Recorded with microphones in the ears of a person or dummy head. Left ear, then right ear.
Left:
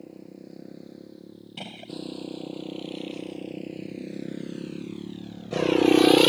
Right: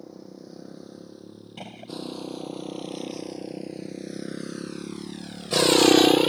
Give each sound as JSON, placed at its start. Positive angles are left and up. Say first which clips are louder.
{"t": 0.0, "sound": "a motorcycle", "louder": "right 1 dB", "side_deg": -45}
{"t": 1.6, "sound": "a gunshot", "louder": "left 1 dB", "side_deg": -10}